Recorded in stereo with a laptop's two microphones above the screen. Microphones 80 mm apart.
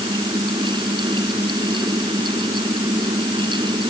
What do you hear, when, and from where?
0.0 s a fan: 75° right (ahead or behind)